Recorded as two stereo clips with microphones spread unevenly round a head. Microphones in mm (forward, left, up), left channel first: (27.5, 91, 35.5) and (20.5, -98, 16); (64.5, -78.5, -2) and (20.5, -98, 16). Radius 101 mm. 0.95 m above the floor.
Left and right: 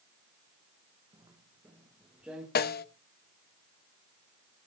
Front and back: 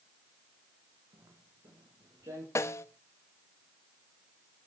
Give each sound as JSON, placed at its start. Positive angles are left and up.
{"t": 1.1, "sound": "footsteps", "azimuth_deg": -165, "distance_m": 3.0}
{"t": 2.5, "sound": "a snare drum", "azimuth_deg": 45, "distance_m": 0.8}